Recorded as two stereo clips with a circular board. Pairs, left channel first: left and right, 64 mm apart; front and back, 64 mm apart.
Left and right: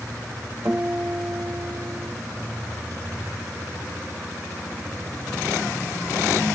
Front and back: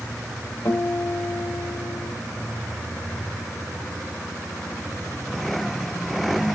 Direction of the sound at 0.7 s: 50° right.